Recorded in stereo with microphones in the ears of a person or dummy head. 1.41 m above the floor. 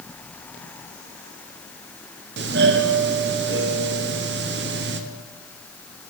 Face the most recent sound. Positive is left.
turn(degrees=-50)  # may be behind; listen again after turning